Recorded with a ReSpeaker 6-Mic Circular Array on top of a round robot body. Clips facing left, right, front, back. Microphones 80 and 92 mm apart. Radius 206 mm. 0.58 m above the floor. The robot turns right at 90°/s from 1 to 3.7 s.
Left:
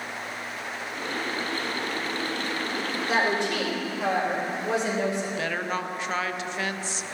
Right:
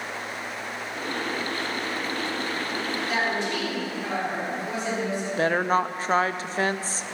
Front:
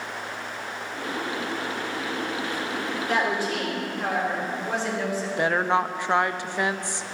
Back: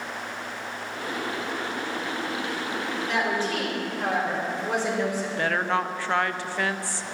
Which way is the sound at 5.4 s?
65° right.